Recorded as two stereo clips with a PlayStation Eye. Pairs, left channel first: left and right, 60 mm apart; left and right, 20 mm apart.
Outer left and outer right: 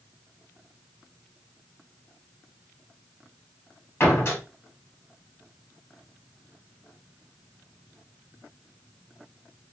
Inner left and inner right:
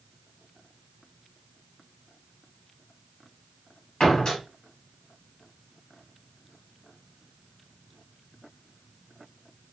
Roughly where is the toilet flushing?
I don't hear a toilet flushing.